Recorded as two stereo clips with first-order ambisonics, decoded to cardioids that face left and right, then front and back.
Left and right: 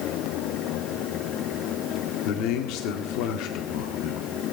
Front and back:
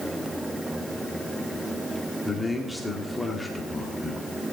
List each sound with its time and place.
2.2 s a man speaking: 90° left, 1.6 m